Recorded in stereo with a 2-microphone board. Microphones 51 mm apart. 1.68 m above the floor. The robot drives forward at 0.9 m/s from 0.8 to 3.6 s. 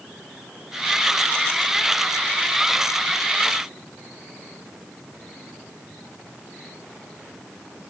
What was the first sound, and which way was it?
Only background noise.